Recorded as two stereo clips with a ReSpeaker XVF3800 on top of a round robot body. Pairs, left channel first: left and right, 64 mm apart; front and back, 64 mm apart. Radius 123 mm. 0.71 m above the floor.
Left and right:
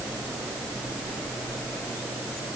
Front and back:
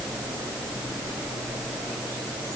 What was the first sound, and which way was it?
Only background noise.